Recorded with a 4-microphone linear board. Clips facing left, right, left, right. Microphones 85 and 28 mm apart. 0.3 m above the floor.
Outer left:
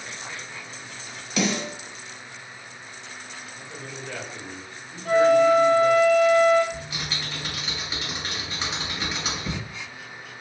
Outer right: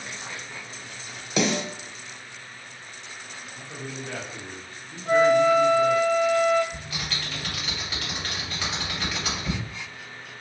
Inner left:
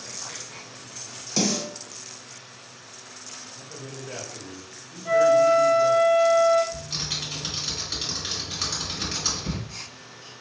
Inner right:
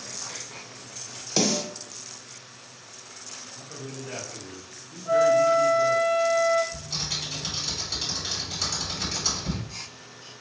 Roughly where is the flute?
Left.